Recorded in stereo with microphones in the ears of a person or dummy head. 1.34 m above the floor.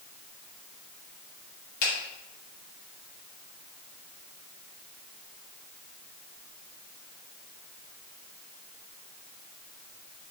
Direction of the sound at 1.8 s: 60° left (ahead or behind).